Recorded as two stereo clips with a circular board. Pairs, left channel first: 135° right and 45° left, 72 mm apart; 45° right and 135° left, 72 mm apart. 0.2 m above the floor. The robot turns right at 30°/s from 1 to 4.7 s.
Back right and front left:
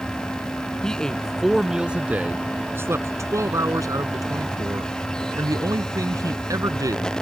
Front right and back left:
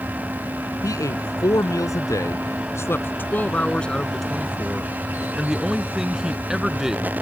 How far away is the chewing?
I don't hear chewing.